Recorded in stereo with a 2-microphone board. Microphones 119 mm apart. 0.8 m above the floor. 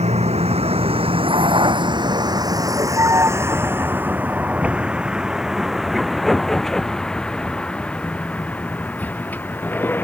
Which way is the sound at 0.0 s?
65° right (ahead or behind).